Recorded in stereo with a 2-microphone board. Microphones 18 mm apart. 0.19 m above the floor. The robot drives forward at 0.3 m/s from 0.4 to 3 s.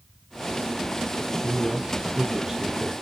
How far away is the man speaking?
About 1.3 m.